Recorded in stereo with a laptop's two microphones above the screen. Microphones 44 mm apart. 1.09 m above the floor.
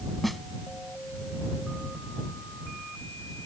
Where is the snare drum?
Centre (ahead or behind).